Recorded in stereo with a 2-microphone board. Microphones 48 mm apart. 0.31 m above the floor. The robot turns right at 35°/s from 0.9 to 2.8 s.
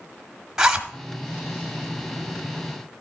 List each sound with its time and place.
0.6 s a zipper: 15° right (ahead or behind), 1.2 m